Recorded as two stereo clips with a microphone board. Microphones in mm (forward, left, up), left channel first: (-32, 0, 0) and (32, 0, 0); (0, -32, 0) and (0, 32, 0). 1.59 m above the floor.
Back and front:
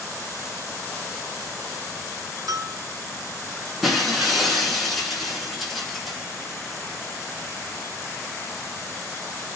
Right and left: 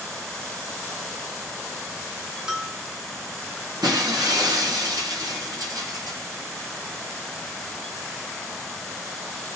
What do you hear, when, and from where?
2.5 s a bell: 15° left, 2 m
3.8 s breaking glass: 90° left, 8.5 m